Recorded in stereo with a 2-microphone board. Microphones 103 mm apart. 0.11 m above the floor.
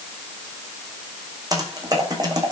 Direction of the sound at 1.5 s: 40° right (ahead or behind).